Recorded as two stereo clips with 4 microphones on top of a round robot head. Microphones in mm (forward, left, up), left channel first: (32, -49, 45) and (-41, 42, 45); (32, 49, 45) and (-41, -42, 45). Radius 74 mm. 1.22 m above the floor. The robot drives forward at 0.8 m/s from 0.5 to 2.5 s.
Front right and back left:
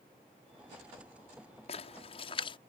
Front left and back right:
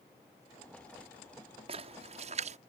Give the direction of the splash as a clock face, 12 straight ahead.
3 o'clock.